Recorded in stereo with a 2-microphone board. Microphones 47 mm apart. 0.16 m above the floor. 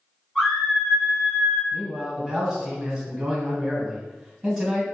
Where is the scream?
5° left (ahead or behind), 1.7 m; by 1.6 s 15° right (ahead or behind), 3 m.